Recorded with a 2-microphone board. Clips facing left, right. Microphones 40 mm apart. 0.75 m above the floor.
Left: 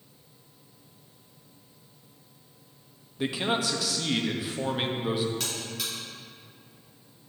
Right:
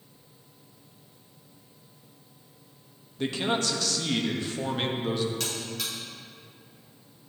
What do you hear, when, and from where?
3.2 s a man speaking: 10° left (ahead or behind), 0.5 m
5.4 s a buzzer: 5° left (ahead or behind), 2 m